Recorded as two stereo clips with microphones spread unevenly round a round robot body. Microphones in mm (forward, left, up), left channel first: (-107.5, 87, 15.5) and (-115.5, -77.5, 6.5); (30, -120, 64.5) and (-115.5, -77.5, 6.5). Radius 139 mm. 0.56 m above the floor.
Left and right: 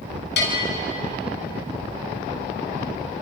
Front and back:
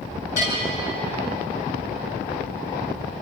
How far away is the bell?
About 4.5 m.